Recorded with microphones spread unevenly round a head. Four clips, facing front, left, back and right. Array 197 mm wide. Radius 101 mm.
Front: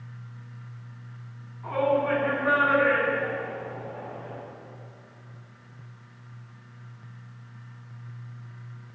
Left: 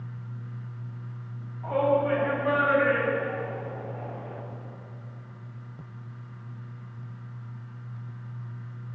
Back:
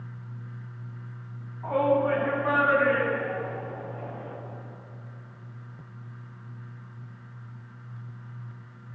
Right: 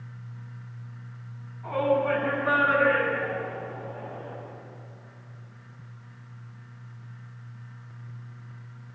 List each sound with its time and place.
1.6 s a shout: 135° left, 10 m; by 4.3 s 145° left, 13 m